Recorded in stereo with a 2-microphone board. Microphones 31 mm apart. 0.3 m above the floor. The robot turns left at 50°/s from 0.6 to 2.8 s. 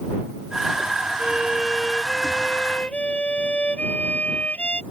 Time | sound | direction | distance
1.2 | a violin | 145° right | ?